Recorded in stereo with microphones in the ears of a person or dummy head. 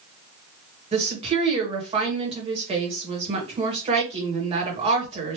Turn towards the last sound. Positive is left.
turn(degrees=-30)  # may be behind; listen again after turning